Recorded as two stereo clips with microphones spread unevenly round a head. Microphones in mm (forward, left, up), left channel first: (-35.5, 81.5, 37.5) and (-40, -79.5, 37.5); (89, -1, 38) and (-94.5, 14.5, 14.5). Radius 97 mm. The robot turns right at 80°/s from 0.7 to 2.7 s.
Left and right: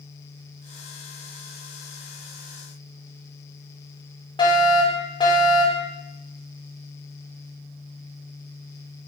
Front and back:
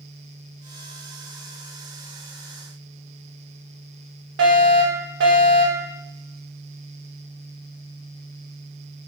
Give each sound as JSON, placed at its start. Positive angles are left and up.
{"t": 4.4, "sound": "a fire alarm", "azimuth_deg": 150, "distance_m": 5.5}